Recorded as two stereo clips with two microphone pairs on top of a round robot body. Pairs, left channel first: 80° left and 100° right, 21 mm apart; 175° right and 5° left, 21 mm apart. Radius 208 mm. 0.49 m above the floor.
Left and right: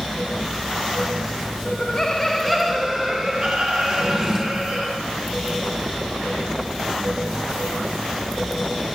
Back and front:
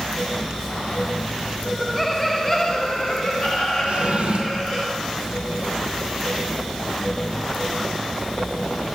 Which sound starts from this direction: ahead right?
A drawer, at 3.9 s.